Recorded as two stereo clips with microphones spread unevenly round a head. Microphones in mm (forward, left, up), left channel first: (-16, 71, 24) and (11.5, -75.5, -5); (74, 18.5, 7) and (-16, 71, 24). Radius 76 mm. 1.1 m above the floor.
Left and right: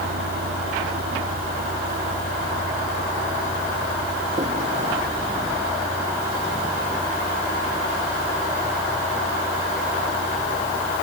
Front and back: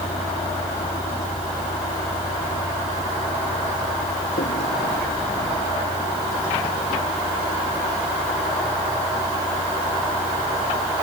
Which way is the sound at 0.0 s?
60° right.